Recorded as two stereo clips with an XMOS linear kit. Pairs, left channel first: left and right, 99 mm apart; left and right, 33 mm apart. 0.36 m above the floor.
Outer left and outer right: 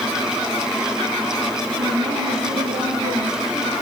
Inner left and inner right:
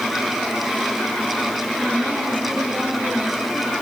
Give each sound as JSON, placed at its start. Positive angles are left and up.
{"t": 1.8, "sound": "a woman speaking", "side_deg": -85, "distance_m": 8.5}